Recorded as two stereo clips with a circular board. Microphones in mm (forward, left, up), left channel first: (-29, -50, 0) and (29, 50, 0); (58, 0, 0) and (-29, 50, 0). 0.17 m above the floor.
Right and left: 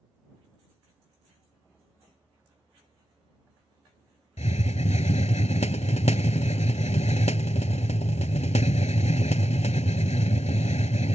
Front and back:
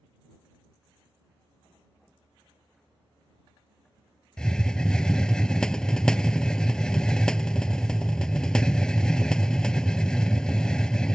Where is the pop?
I don't hear a pop.